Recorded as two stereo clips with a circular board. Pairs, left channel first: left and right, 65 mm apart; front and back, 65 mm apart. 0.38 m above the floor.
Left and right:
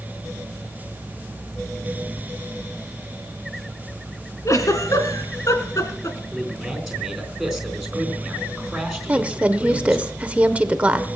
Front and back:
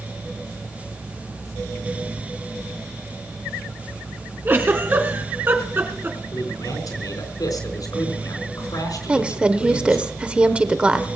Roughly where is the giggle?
Behind left.